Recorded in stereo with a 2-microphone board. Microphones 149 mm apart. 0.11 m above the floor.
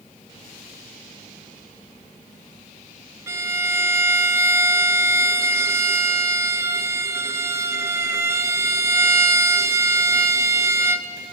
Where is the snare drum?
I don't hear a snare drum.